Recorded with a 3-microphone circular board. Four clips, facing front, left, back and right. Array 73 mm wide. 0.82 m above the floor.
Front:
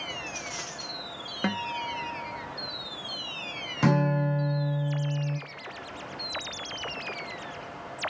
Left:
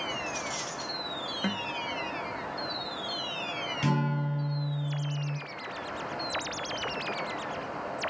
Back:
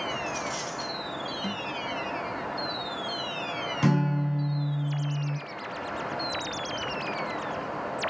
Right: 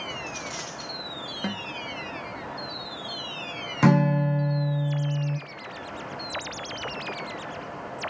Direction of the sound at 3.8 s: 80° right.